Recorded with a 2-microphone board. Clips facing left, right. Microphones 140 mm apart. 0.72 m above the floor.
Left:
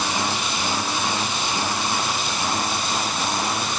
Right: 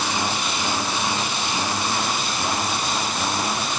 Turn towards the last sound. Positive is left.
No sound to turn to.